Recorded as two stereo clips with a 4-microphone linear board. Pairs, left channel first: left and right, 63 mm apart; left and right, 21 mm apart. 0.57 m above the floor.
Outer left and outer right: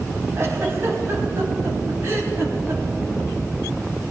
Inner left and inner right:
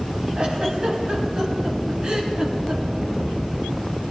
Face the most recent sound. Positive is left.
turn(degrees=-45)  # may be behind; listen again after turning